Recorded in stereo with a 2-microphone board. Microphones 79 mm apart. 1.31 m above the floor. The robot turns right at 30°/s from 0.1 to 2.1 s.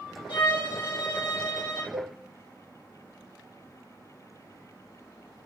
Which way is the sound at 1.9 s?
65° right (ahead or behind).